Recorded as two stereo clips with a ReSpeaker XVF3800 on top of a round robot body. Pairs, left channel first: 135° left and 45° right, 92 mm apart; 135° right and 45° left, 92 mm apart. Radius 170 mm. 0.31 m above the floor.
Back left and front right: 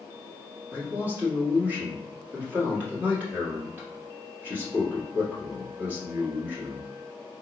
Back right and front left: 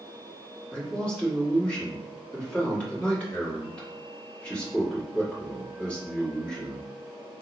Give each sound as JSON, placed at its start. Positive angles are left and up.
{"t": 0.7, "sound": "a man speaking", "azimuth_deg": -80, "distance_m": 1.5}